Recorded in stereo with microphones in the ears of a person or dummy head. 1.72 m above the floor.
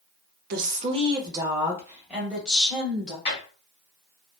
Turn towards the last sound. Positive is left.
turn(degrees=30)  # may be behind; listen again after turning